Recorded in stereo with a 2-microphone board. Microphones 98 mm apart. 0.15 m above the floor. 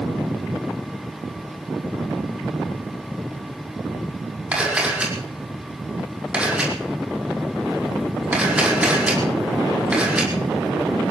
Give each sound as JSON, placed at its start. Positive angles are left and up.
{"t": 4.5, "sound": "a camera shutter", "side_deg": -15, "distance_m": 6.0}